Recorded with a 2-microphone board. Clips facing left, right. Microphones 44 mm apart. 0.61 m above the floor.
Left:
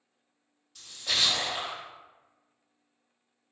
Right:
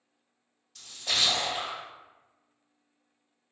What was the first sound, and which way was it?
A splash, centre (ahead or behind).